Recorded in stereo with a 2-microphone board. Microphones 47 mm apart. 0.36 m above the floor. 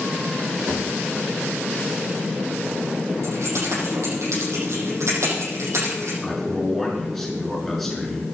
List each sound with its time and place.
0.7 s a thud: 50° right (ahead or behind), 6.5 m
3.2 s keys jangling: 70° right (ahead or behind), 9 m
6.2 s a man speaking: 5° left (ahead or behind), 5.5 m